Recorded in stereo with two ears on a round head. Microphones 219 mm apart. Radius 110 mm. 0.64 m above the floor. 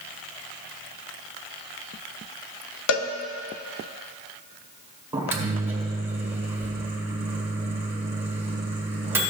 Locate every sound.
2.9 s a cowbell: 55° left (ahead or behind), 0.6 m
5.1 s a microwave: 10° right (ahead or behind), 1.5 m